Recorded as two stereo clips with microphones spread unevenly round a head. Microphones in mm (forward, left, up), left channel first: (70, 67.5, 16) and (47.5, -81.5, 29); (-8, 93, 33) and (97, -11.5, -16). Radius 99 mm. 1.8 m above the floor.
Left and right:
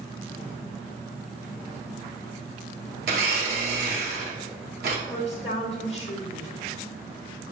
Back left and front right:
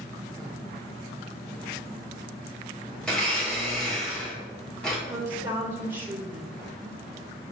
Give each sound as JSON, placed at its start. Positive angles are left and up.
{"t": 3.0, "sound": "a blender", "azimuth_deg": -140, "distance_m": 0.7}
{"t": 5.1, "sound": "a woman speaking", "azimuth_deg": 30, "distance_m": 0.9}